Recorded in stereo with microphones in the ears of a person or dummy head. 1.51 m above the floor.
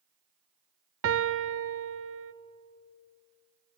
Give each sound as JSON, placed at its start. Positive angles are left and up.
{"t": 1.0, "sound": "a piano", "side_deg": -65, "distance_m": 0.6}